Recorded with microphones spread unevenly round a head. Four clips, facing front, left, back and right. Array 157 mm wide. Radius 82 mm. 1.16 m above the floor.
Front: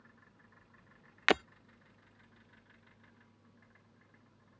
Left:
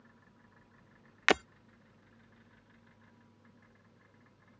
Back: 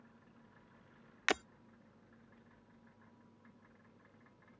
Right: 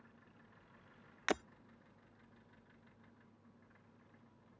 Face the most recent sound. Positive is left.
turn(degrees=50)